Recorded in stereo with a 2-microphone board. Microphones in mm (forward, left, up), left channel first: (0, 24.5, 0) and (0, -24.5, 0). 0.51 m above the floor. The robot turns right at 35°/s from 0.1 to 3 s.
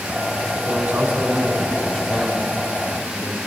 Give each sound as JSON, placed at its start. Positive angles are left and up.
{"t": 0.6, "sound": "a man speaking", "azimuth_deg": -45, "distance_m": 2.5}